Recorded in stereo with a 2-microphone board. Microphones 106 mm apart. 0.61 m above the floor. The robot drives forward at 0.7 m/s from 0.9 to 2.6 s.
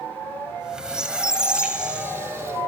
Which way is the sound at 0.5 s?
5° right (ahead or behind).